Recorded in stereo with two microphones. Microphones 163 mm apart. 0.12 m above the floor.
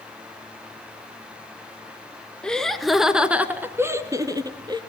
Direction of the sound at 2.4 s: 5° left (ahead or behind).